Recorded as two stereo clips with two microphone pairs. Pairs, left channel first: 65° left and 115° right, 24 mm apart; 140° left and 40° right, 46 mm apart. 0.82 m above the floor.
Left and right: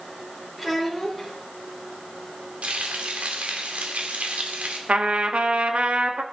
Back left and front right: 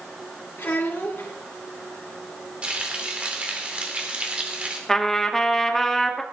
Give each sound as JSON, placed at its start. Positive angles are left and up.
{"t": 0.6, "sound": "a child speaking", "azimuth_deg": 160, "distance_m": 2.5}
{"t": 2.6, "sound": "frying", "azimuth_deg": -100, "distance_m": 2.5}
{"t": 4.9, "sound": "a trumpet", "azimuth_deg": -140, "distance_m": 1.1}